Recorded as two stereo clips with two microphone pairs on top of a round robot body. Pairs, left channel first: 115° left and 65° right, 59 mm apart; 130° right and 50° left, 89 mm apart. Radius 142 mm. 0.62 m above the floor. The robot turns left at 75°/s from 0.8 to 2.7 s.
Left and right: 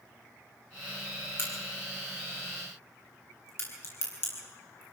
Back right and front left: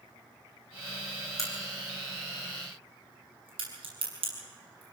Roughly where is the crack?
Behind.